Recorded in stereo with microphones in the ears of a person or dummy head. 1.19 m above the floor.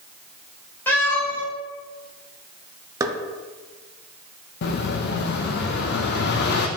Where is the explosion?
65° left (ahead or behind), 0.7 m.